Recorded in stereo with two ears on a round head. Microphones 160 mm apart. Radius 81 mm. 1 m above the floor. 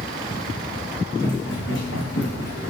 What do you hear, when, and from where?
1.2 s running footsteps: 75° left (ahead or behind), 4 m; by 2.7 s 65° left (ahead or behind), 3.5 m